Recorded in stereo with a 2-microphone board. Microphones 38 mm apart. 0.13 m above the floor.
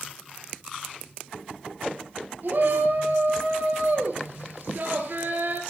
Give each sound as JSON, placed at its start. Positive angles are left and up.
{"t": 2.4, "sound": "a shout", "side_deg": -60, "distance_m": 3.0}